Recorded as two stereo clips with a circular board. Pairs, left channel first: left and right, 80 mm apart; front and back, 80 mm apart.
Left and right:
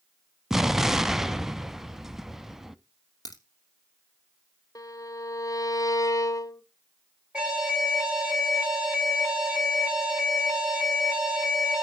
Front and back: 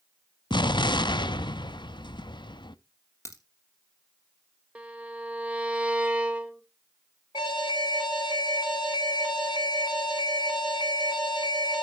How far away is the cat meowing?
No cat meowing in this recording.